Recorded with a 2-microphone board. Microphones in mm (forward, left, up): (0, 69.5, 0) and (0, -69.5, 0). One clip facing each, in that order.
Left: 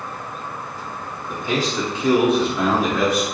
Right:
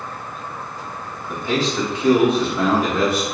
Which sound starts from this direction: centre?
A man speaking, at 1.3 s.